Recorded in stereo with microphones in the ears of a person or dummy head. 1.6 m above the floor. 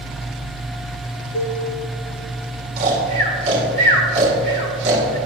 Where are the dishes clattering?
45° left (ahead or behind), 1.4 m.